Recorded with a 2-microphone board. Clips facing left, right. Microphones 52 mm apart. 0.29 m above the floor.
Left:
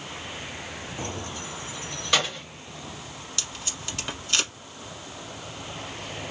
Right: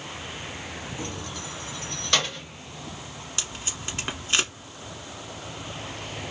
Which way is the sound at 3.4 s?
25° right (ahead or behind).